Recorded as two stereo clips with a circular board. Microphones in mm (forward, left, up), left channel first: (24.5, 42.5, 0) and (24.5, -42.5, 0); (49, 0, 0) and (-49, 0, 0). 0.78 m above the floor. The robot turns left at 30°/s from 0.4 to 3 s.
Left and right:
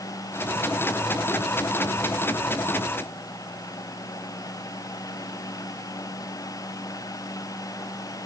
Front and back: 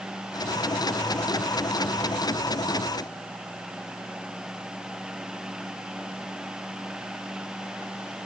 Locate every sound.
Only background noise.